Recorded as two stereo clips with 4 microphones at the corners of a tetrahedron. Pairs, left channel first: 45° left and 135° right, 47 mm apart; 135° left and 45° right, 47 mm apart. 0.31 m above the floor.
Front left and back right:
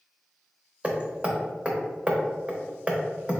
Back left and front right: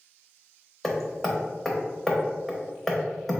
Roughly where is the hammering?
Behind right.